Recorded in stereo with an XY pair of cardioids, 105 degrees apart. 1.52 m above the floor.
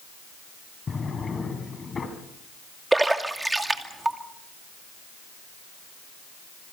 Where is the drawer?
35° left, 4.5 m.